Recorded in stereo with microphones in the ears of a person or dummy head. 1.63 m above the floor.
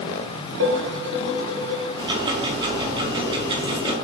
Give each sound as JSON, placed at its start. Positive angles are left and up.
{"t": 0.6, "sound": "dishes clattering", "side_deg": -60, "distance_m": 1.3}
{"t": 2.0, "sound": "ticking", "side_deg": -25, "distance_m": 0.8}